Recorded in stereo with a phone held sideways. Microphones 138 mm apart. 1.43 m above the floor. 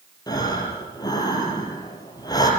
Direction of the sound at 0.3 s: 30° left (ahead or behind).